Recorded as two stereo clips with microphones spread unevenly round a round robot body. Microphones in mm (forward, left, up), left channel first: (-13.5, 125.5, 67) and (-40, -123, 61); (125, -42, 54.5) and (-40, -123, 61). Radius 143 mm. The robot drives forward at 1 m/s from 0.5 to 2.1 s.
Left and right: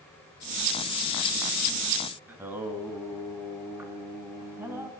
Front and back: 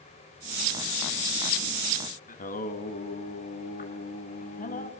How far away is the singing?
About 2.5 m.